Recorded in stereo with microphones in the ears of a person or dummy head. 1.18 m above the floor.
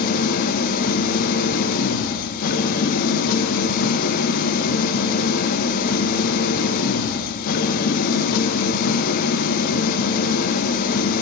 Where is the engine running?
50° left (ahead or behind), 0.7 m.